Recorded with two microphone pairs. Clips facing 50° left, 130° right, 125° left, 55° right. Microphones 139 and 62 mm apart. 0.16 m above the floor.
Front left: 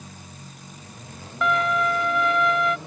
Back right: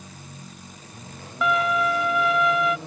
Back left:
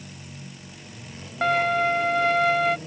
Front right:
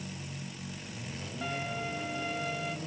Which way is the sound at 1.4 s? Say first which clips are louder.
Even, back left 16 dB; 140° left.